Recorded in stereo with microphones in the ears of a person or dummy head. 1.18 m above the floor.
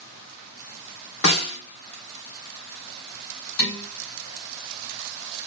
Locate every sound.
1.2 s a snare drum: 80° left, 2.5 m
3.6 s dishes clattering: 80° left, 3 m